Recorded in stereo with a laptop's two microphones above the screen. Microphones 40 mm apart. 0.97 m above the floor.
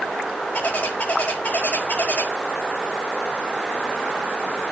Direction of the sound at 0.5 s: 35° left (ahead or behind).